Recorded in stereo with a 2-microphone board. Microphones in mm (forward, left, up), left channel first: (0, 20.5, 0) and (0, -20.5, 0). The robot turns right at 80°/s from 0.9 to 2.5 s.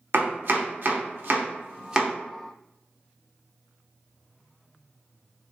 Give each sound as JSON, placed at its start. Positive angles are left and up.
{"t": 0.1, "sound": "chopping", "side_deg": -60, "distance_m": 0.7}